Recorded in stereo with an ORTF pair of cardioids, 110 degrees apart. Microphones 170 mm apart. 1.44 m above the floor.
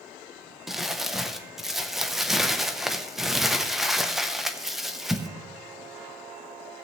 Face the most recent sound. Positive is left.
turn(degrees=0)